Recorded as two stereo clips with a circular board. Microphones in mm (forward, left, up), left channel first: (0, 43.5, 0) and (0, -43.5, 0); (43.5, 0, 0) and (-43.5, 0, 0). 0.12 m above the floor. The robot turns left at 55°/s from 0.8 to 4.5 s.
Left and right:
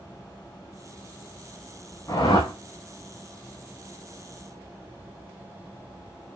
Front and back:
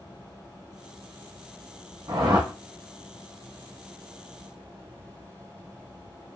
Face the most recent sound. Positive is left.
turn(degrees=5)